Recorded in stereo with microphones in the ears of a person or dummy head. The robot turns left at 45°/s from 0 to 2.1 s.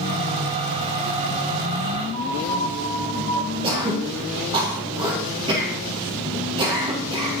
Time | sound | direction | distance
2.1 | a piano | 40° left (ahead or behind) | 1.9 m
3.6 | throat clearing | 25° right (ahead or behind) | 1.6 m